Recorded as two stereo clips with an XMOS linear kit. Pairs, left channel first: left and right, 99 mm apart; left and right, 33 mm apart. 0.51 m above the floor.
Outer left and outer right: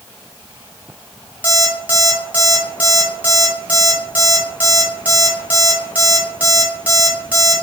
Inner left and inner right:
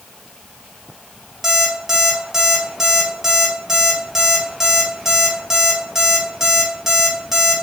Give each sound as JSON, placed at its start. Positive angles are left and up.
{"t": 1.4, "sound": "an alarm clock", "side_deg": -15, "distance_m": 1.2}